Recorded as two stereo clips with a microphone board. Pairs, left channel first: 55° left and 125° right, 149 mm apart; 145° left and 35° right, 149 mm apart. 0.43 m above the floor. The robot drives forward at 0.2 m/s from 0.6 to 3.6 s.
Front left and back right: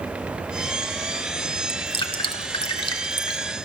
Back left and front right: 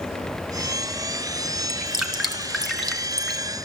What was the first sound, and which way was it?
Dripping, 50° left.